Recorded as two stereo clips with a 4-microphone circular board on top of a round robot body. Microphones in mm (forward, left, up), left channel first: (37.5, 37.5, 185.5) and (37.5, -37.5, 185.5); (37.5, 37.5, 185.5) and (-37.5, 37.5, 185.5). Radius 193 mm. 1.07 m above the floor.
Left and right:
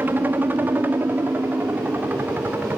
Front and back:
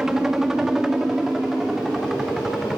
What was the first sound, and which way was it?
A helicopter, 105° right.